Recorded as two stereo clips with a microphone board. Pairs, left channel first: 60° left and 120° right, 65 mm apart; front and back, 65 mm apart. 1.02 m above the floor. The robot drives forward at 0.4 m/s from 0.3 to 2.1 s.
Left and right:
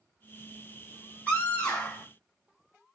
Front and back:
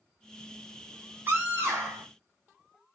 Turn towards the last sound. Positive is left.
turn(degrees=135)